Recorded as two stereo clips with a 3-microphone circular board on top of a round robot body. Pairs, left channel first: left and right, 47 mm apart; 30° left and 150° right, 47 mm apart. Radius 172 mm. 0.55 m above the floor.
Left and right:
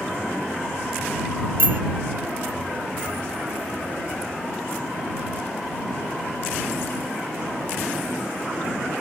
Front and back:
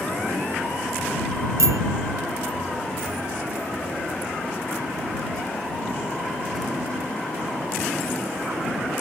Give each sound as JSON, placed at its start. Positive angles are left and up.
{"t": 1.6, "sound": "a bicycle bell", "azimuth_deg": -135}